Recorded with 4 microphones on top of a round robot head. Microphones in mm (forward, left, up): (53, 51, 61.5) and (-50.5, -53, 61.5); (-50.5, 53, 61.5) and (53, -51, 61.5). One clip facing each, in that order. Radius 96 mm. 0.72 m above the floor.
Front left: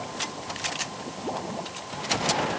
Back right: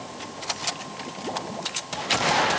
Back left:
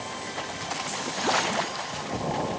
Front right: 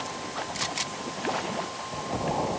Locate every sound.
Only background noise.